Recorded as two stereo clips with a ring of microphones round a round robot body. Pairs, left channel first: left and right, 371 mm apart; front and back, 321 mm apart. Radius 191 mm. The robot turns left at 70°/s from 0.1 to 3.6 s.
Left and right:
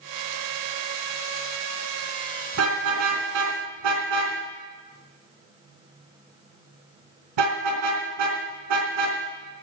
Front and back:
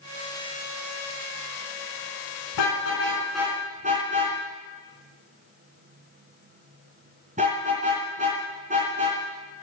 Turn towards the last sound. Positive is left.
turn(degrees=-105)